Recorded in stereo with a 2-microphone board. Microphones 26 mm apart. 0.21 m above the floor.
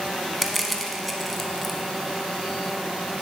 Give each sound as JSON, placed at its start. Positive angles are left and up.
{"t": 0.4, "sound": "crushing", "side_deg": 5, "distance_m": 0.6}